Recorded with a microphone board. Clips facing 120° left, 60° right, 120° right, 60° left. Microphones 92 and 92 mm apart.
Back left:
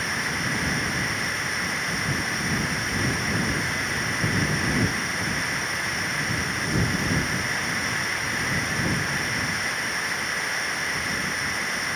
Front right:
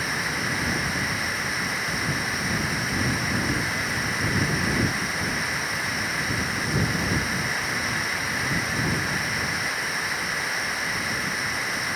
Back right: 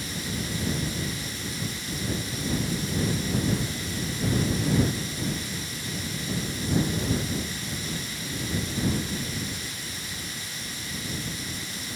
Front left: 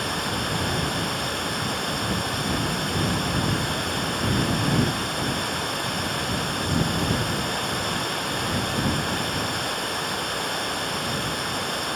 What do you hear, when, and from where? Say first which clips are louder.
0.0 s running water: even, front left 6 dB; 30° left